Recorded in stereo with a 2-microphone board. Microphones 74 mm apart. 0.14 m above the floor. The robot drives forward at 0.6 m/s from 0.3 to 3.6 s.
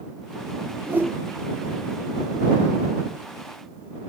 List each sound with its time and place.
0.9 s a whoosh: 25° right (ahead or behind), 3.5 m